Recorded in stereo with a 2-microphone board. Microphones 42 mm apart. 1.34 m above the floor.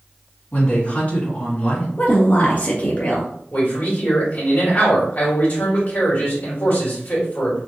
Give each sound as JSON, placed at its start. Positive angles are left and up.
{"t": 0.5, "sound": "a woman speaking", "side_deg": 35, "distance_m": 1.9}
{"t": 2.0, "sound": "a woman speaking", "side_deg": 35, "distance_m": 1.3}
{"t": 3.5, "sound": "a man speaking", "side_deg": 45, "distance_m": 1.9}